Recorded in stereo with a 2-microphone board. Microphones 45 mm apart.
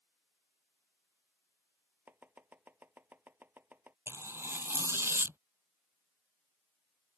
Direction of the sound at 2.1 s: 45° right (ahead or behind).